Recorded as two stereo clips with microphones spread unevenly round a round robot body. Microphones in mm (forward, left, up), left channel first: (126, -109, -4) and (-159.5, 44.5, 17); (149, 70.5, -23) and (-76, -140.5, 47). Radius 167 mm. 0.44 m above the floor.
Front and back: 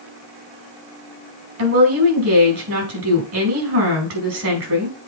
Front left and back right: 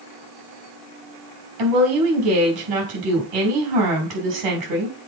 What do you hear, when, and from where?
1.6 s a woman speaking: 165° right, 5 m